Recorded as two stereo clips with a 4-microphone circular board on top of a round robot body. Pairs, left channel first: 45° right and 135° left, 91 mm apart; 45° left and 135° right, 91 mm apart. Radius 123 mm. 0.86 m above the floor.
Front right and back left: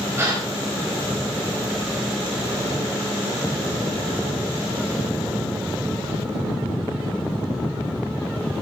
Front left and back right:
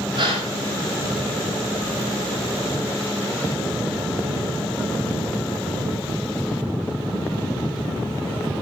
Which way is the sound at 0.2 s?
160° right.